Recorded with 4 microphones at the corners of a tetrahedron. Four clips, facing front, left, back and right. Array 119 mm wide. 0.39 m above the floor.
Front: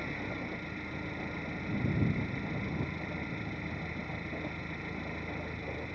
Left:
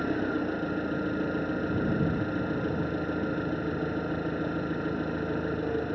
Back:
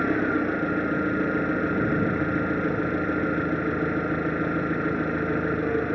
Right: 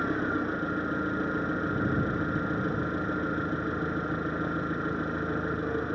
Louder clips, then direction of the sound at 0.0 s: Even, back 16 dB; 175° left.